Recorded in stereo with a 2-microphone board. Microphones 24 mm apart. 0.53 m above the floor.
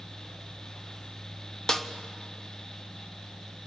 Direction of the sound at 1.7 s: 25° left (ahead or behind).